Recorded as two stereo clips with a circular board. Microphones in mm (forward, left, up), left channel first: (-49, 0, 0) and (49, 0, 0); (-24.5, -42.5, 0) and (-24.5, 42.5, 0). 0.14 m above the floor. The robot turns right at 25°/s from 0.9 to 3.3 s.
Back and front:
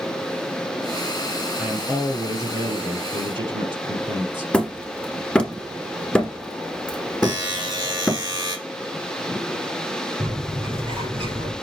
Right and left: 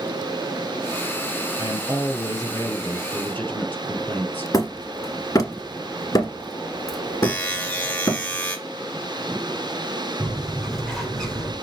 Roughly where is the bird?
Ahead.